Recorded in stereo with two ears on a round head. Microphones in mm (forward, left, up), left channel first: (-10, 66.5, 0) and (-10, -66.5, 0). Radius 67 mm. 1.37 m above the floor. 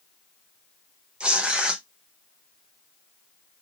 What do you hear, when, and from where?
1.2 s tearing paper: 5° right (ahead or behind), 0.8 m